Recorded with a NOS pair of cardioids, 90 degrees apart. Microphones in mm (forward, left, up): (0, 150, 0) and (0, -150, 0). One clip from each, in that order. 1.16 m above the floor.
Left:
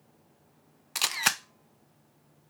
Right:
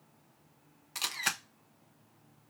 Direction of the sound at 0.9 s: 35° left.